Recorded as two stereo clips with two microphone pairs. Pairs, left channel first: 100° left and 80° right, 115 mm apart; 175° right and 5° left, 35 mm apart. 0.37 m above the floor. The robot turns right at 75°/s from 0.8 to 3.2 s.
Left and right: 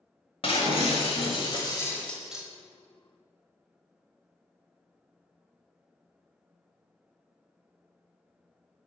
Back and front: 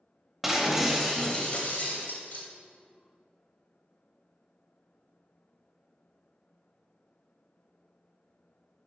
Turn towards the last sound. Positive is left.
turn(degrees=-100)